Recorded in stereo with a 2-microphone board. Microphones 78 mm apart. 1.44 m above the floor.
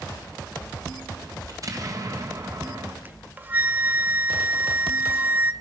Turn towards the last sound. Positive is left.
turn(degrees=-20)  # may be behind; listen again after turning